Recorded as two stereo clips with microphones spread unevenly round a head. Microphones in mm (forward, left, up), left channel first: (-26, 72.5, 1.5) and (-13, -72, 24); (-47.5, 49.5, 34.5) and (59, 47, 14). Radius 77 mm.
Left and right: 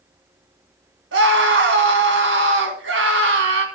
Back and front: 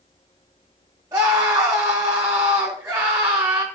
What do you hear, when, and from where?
1.1 s a scream: 70° right, 3 m